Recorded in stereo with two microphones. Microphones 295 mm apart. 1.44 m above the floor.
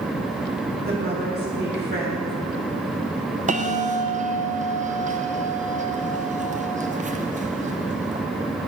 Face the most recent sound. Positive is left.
turn(degrees=-25)  # may be behind; listen again after turning